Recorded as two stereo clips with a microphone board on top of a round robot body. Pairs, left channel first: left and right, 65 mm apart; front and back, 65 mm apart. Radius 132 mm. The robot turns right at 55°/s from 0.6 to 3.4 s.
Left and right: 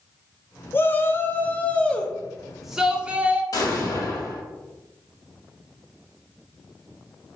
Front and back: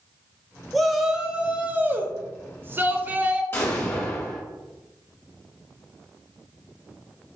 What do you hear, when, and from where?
0.7 s a shout: 85° left, 0.8 m; by 3.4 s 130° right, 0.8 m
3.5 s an explosion: 55° left, 1.0 m